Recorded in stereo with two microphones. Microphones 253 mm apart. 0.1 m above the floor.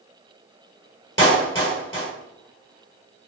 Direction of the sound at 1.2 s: 10° left (ahead or behind).